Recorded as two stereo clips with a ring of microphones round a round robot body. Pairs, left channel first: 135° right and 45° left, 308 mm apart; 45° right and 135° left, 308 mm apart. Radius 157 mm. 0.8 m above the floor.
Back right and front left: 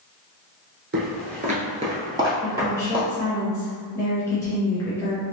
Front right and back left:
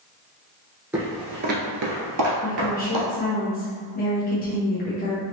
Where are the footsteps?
55° left, 0.8 m; by 3.1 s 130° left, 1.6 m.